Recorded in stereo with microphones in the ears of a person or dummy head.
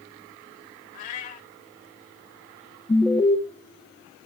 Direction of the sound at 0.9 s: 40° left (ahead or behind).